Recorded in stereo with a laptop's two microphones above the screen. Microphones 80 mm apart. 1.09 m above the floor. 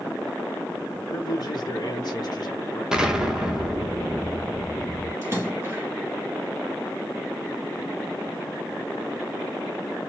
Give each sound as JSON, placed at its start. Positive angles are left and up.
{"t": 0.9, "sound": "a man speaking", "side_deg": 50, "distance_m": 1.0}
{"t": 2.9, "sound": "an explosion", "side_deg": -10, "distance_m": 1.1}
{"t": 5.2, "sound": "a splash", "side_deg": -30, "distance_m": 2.5}